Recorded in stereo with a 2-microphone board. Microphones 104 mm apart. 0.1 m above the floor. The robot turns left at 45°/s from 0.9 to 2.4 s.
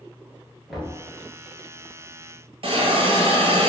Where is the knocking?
Centre (ahead or behind), 1.1 m; by 1.0 s 5° left (ahead or behind), 1.1 m.